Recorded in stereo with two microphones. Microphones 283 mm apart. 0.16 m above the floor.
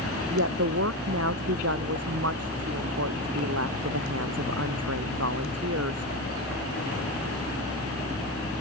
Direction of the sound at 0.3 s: 60° right (ahead or behind).